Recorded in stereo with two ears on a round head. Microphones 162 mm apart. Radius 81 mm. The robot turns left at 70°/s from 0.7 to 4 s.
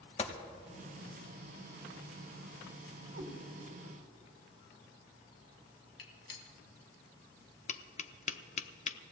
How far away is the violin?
No violin in this recording.